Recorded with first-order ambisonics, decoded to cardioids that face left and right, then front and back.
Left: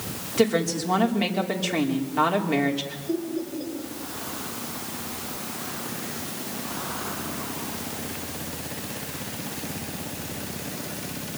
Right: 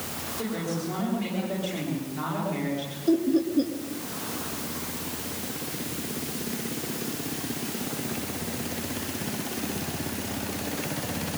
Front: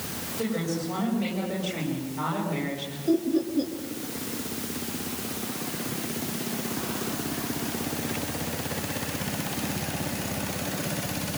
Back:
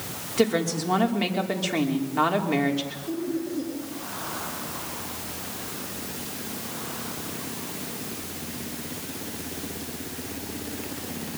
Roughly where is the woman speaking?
Behind left.